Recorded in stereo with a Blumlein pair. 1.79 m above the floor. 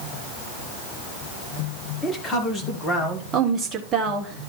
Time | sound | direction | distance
2.0 | a man speaking | 10° left | 1.8 m
3.3 | a woman speaking | 20° right | 1.6 m